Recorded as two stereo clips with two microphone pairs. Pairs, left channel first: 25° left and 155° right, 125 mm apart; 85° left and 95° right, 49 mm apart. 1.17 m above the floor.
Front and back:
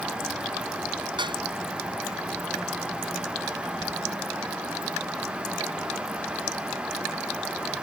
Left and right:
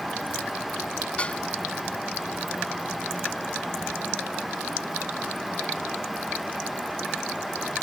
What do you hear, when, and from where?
1.2 s dishes clattering: 150° left